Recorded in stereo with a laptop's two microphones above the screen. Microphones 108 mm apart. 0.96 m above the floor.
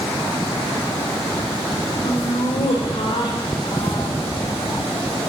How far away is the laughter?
About 3.5 m.